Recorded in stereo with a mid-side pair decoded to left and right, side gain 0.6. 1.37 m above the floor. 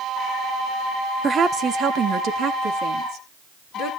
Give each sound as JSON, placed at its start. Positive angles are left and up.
{"t": 1.2, "sound": "a woman speaking", "azimuth_deg": -30, "distance_m": 1.1}